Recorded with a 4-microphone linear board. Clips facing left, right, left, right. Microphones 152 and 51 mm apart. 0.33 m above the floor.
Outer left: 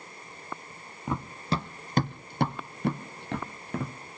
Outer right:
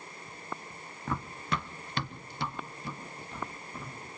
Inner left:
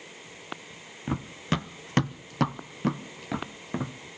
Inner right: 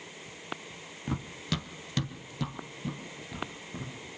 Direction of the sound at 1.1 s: 20° left (ahead or behind).